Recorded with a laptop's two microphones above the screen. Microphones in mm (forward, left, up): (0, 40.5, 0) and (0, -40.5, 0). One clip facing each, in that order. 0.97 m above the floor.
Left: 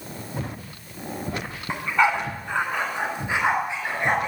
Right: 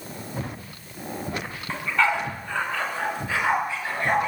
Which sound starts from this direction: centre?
A dog barking, at 1.7 s.